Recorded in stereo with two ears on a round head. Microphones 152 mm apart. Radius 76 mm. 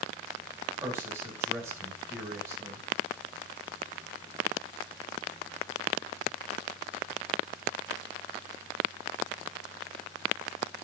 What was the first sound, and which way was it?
A man speaking, 10° right (ahead or behind).